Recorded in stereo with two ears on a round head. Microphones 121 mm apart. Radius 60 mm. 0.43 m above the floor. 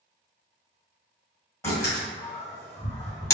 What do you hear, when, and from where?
1.6 s a door slam: 20° left (ahead or behind), 1.7 m